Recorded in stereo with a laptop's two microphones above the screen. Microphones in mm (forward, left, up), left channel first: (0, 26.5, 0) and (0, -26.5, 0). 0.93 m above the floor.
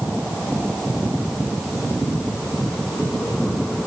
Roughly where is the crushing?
I don't hear crushing.